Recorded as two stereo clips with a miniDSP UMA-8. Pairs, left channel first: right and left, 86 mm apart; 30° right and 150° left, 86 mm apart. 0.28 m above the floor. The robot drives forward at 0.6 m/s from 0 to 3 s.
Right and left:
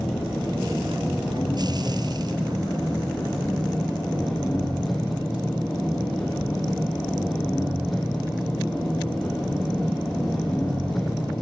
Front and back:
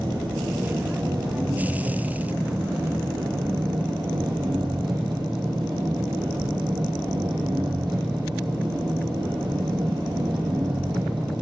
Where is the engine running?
Straight behind, 6 m.